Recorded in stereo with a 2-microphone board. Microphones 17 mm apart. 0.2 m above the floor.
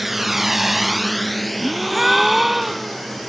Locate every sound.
0.0 s a drone: 10° right (ahead or behind); by 3.3 s 5° left (ahead or behind)
1.6 s a gasp: 10° right (ahead or behind)